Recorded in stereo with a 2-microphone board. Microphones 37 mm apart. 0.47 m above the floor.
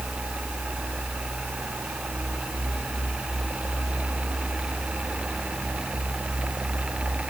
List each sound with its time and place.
Only background noise.